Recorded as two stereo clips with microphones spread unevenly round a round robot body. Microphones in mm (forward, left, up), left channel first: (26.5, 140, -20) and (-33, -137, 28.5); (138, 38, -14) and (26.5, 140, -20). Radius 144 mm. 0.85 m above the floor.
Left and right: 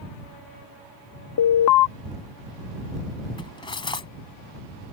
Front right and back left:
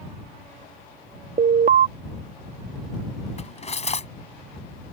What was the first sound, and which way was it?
An alarm, 105° left.